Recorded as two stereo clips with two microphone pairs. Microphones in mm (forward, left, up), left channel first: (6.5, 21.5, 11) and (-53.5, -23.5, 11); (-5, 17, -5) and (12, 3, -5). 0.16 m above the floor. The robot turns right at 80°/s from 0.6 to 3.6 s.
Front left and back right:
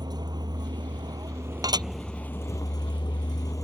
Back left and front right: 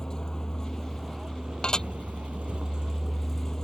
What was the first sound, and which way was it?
A vehicle, 165° right.